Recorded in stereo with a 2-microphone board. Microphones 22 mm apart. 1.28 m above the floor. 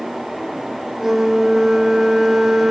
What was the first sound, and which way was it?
A flute, 15° right (ahead or behind).